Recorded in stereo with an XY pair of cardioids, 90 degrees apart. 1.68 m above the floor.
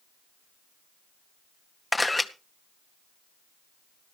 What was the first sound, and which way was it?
A camera shutter, 15° left.